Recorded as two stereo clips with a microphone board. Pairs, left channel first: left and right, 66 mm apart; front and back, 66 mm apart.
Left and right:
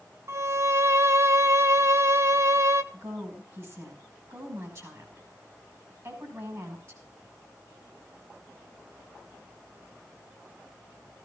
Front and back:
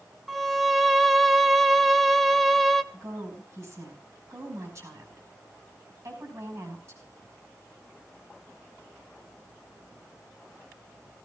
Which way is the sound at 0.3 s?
90° right.